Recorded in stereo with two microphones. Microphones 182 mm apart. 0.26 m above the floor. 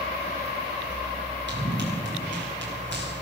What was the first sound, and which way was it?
Running footsteps, 75° right (ahead or behind).